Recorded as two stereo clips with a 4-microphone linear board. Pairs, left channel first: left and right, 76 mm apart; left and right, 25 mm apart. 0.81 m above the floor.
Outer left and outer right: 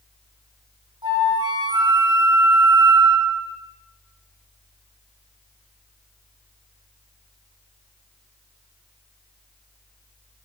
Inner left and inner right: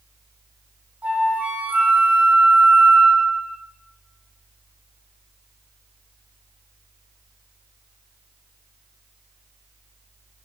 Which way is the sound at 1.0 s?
75° right (ahead or behind).